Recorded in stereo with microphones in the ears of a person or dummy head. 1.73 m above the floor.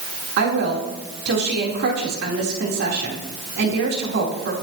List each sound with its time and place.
0.4 s a woman speaking: 70° right (ahead or behind), 4 m